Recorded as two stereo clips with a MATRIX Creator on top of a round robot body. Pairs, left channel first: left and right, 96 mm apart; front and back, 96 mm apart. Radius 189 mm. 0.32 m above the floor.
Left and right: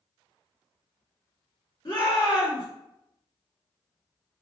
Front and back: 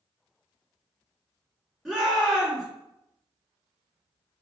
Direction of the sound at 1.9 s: 95° left.